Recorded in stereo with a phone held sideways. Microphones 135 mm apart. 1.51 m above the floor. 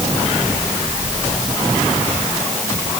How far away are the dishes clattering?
No dishes clattering in this recording.